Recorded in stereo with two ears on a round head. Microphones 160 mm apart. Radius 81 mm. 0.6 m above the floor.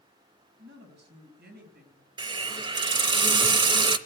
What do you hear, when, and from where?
0.6 s a woman speaking: 75° right (ahead or behind), 4.5 m; by 2.1 s 50° right (ahead or behind), 4 m
2.2 s a hiss: 25° right (ahead or behind), 0.8 m